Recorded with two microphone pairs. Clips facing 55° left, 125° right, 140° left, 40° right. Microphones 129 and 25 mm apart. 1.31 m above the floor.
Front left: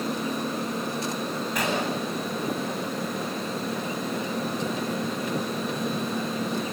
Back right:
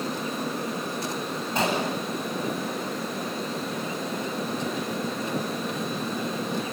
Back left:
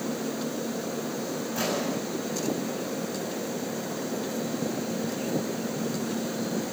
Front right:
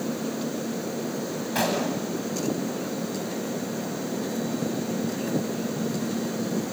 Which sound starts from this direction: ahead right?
A gunshot, at 1.6 s.